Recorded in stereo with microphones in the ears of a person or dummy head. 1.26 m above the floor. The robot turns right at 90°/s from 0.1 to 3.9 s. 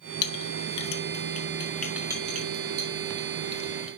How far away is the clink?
About 1.2 m.